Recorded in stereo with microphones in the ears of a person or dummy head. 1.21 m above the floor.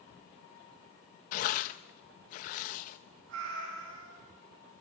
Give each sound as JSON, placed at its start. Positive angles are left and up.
{"t": 1.3, "sound": "tearing paper", "side_deg": 50, "distance_m": 0.5}
{"t": 3.3, "sound": "a cat meowing", "side_deg": -65, "distance_m": 5.5}